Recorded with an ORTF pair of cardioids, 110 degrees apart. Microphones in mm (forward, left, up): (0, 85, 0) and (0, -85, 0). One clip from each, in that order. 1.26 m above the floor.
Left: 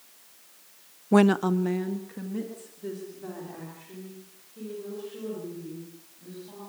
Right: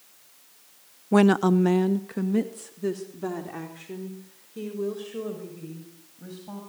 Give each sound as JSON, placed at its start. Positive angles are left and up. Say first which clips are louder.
{"t": 1.1, "sound": "a woman speaking", "louder": "right 2 dB", "azimuth_deg": 5, "distance_m": 0.5}